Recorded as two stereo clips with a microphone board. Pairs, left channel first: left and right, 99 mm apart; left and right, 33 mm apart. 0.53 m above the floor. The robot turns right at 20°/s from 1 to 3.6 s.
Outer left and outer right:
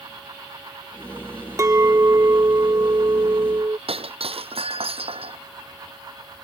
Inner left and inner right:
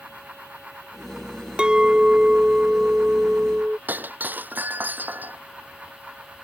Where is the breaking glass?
75° right (ahead or behind).